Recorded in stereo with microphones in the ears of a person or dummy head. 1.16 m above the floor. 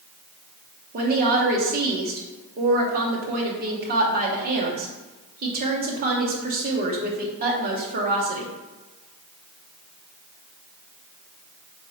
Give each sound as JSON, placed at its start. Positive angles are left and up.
{"t": 0.9, "sound": "a woman speaking", "side_deg": -35, "distance_m": 0.7}